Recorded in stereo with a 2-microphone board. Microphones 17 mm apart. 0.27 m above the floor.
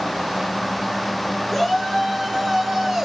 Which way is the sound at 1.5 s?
5° left (ahead or behind).